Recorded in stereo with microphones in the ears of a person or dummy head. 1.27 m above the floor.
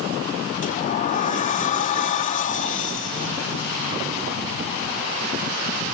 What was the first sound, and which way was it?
A sliding door, 40° left (ahead or behind).